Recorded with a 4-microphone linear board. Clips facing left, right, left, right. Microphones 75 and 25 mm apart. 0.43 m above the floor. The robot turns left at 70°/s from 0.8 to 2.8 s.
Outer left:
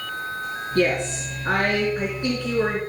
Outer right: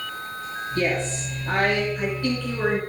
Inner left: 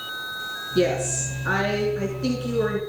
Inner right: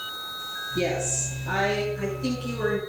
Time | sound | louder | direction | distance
0.8 | a woman speaking | outer left 3 dB, inner left 5 dB | 120° left | 4.5 m